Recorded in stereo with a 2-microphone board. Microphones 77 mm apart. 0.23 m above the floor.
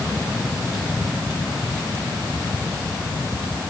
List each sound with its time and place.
Only background noise.